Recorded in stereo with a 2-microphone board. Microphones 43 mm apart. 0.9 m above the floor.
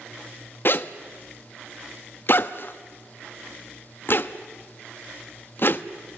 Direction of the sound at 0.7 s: 50° left (ahead or behind).